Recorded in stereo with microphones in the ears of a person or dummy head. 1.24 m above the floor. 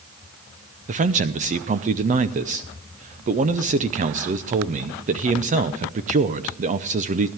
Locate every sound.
0.9 s a man speaking: 35° right (ahead or behind), 0.7 m